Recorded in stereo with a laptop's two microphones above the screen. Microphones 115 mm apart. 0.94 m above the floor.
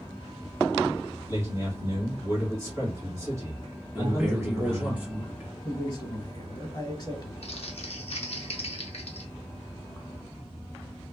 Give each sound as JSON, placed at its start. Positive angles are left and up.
{"t": 1.3, "sound": "a man speaking", "side_deg": -25, "distance_m": 1.6}
{"t": 4.0, "sound": "a man speaking", "side_deg": -15, "distance_m": 0.9}
{"t": 5.7, "sound": "a man speaking", "side_deg": 40, "distance_m": 1.0}
{"t": 7.4, "sound": "crumpling", "side_deg": 65, "distance_m": 0.6}